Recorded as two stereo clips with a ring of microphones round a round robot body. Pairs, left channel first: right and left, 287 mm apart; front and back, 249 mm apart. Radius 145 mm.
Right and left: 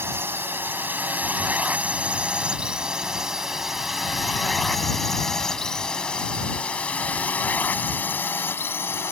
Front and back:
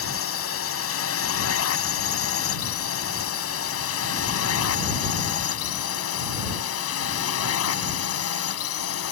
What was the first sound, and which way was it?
A drone, 10° left.